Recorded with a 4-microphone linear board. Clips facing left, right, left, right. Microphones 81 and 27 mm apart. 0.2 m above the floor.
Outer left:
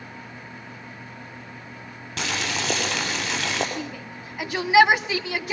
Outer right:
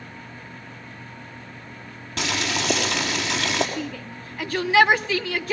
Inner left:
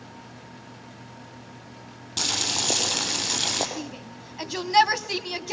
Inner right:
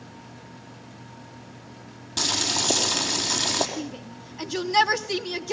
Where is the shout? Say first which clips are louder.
Outer right 2 dB, inner right 2 dB; 15° left (ahead or behind), 1.1 m.